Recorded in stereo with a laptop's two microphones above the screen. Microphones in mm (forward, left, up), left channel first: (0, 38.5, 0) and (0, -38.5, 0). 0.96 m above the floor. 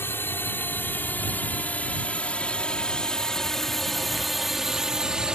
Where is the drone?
30° left (ahead or behind); by 5.4 s 10° right (ahead or behind).